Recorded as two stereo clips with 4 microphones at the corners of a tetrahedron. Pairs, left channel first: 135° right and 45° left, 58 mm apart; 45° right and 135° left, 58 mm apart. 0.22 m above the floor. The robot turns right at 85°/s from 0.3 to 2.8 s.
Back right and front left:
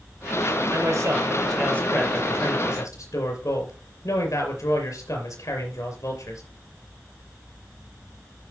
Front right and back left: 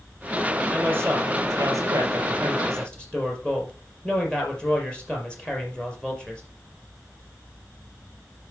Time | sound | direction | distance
0.7 | a man speaking | 60° left | 4 m